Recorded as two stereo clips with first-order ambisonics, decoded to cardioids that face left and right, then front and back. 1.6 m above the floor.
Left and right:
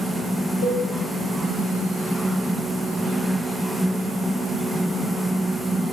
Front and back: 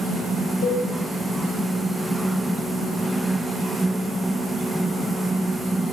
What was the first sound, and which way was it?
A cowbell, 45° left.